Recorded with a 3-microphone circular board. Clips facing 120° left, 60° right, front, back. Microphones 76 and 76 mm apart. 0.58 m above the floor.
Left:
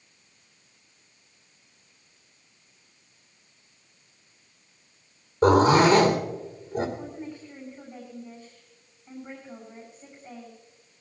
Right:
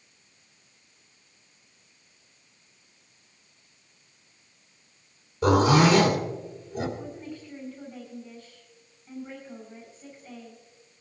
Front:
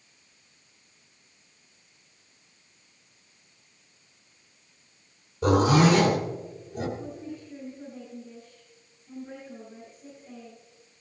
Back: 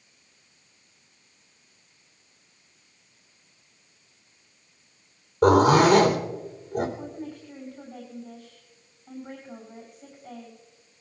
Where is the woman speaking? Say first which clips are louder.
Left 1 dB, back 1 dB; 175° right, 7.5 m.